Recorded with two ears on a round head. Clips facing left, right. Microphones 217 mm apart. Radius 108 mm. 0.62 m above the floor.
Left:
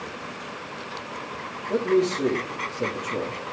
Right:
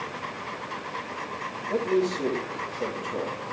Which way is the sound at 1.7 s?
30° left (ahead or behind).